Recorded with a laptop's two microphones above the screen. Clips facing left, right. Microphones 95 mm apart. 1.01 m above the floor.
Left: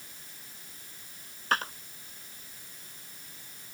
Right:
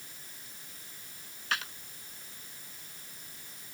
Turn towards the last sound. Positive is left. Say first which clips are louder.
# left 6 dB
turn(degrees=40)  # may be behind; listen again after turning